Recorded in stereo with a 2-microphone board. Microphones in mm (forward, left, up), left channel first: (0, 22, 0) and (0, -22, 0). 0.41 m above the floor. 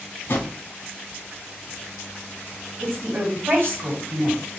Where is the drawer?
50° left (ahead or behind), 0.9 m.